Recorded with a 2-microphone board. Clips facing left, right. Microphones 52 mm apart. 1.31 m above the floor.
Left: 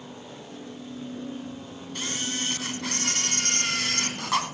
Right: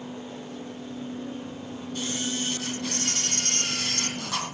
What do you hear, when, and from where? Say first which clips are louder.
1.9 s a camera shutter: right 1 dB; 55° left (ahead or behind), 3.5 m